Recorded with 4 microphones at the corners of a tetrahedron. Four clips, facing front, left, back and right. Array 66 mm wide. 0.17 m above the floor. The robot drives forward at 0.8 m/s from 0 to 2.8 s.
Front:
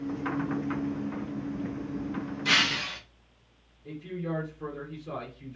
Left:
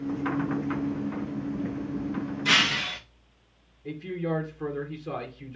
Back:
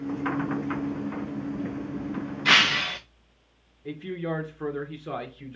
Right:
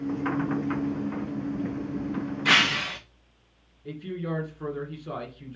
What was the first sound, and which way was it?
Breaking glass, 140° right.